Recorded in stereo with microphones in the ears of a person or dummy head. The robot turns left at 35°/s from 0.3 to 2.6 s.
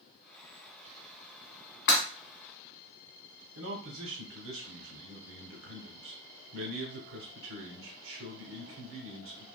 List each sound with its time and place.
1.9 s breaking glass: 60° left (ahead or behind), 2 m; by 2.0 s 55° left (ahead or behind), 2 m
3.5 s a man speaking: 55° right (ahead or behind), 0.8 m